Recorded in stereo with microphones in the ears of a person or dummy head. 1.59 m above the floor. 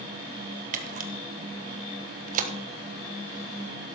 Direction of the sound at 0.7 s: 40° right (ahead or behind).